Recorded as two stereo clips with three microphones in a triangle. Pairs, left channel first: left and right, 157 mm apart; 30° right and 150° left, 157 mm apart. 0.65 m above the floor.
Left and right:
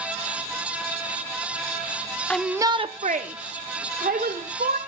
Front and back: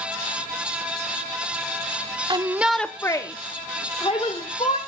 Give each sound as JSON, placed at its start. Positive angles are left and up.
{"t": 2.3, "sound": "a shout", "azimuth_deg": 165, "distance_m": 0.6}